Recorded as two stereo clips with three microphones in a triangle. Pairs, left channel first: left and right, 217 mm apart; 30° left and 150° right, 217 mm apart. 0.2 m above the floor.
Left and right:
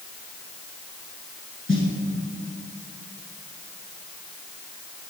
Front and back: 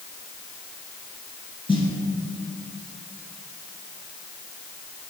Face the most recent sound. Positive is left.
turn(degrees=95)